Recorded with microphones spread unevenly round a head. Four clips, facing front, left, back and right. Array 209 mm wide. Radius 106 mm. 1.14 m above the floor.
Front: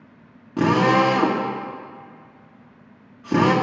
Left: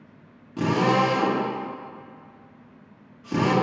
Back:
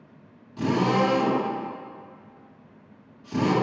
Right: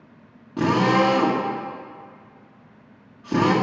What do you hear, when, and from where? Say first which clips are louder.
0.6 s a drill: right 2 dB, front 5 dB; 20° right, 1.7 m